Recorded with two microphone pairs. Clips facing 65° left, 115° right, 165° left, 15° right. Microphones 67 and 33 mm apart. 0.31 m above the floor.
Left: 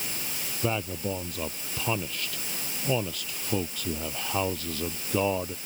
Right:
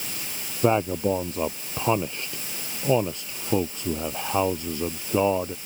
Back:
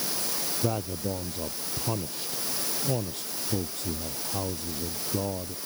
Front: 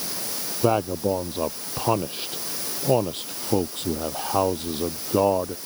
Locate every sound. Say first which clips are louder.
0.6 s a man speaking: right 9 dB, front 10 dB; 60° right; by 5.5 s 40° right